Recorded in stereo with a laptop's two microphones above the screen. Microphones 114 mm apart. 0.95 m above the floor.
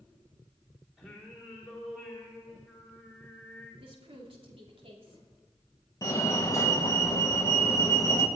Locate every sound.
1.0 s singing: centre (ahead or behind), 3 m
3.8 s a woman speaking: 55° right (ahead or behind), 2.5 m
6.0 s a fire alarm: 30° left (ahead or behind), 1.6 m